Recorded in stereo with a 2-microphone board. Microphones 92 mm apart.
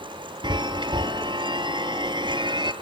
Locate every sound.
0.4 s a chime: 60° right (ahead or behind), 1.0 m